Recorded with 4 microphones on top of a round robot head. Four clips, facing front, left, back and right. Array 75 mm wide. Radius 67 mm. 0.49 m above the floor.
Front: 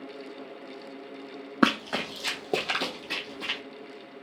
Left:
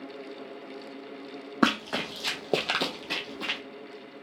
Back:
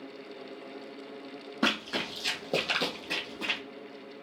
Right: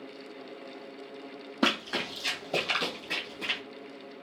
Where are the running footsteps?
35° left, 1.2 m; by 3.6 s 125° left, 1.2 m.